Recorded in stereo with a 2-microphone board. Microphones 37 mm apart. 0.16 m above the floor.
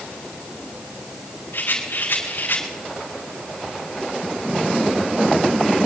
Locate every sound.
1.5 s a rattle: 80° left, 7 m